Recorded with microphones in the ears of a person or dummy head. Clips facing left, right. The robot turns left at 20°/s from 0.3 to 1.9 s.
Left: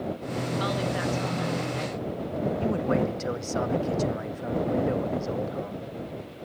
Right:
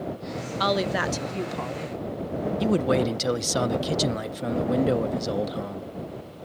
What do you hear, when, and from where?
0.6 s a woman speaking: 65° right (ahead or behind); by 1.9 s 85° right
2.6 s a man speaking: 50° right (ahead or behind)